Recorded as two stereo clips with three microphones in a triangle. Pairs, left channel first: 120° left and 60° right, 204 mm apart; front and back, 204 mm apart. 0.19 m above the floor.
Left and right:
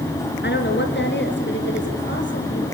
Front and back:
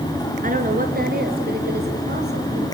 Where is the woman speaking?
140° left, 3 m; by 2.6 s 145° left, 6 m.